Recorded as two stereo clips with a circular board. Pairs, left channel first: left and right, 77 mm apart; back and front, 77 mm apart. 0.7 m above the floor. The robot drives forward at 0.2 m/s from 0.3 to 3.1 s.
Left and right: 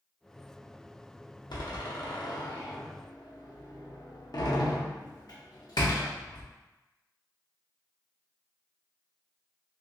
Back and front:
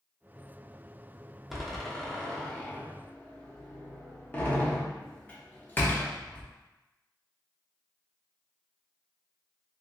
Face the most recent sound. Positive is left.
turn(degrees=110)